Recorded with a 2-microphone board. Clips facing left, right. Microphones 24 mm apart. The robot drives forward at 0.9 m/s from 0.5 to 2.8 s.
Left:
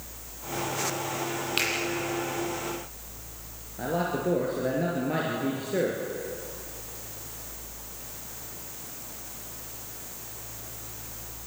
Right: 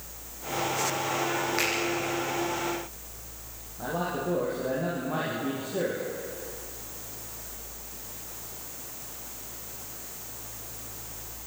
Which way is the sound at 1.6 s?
80° left.